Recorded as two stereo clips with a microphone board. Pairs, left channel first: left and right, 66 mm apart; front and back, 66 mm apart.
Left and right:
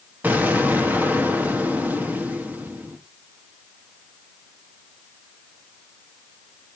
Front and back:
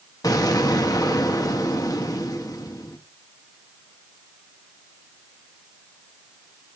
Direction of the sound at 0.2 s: 25° right.